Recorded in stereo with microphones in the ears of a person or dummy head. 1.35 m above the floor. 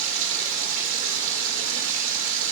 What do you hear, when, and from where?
0.0 s running water: 70° right (ahead or behind), 1.4 m